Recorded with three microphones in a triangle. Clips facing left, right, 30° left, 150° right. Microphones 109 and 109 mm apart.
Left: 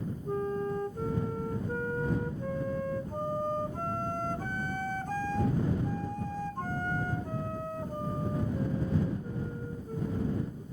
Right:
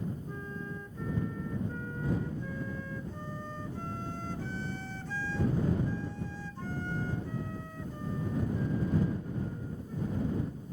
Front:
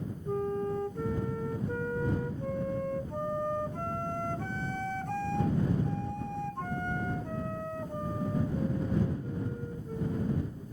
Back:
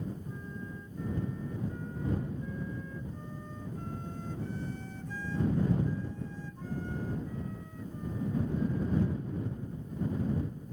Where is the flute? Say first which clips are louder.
Left 10 dB, front 12 dB; 50° left.